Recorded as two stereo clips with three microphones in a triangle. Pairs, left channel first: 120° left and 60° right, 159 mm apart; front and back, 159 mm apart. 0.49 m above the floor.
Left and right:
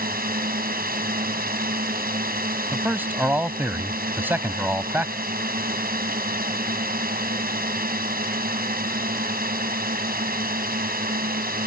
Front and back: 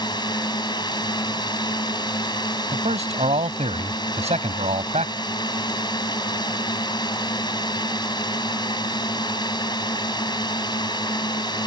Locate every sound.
0.0 s a drone: 60° right
2.7 s a man speaking: 135° right